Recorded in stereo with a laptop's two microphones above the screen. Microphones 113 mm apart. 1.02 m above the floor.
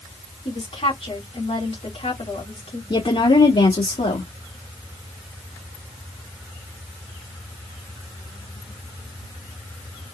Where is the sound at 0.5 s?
70° left (ahead or behind), 2.5 m.